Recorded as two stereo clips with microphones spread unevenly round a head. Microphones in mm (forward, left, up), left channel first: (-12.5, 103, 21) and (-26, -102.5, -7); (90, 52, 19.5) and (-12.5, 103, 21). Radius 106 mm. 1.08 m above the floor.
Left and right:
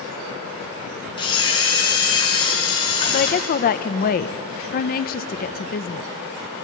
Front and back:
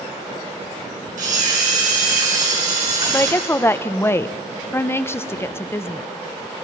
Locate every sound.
1.2 s a camera shutter: 155° left, 6 m
3.1 s a woman speaking: 40° left, 0.8 m